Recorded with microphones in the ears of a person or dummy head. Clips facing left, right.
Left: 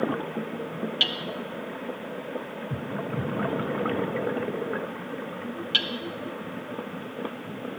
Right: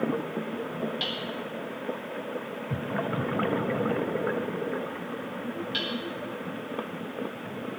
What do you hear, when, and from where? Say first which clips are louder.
1.0 s hammering: left 1 dB; 45° left (ahead or behind), 0.8 m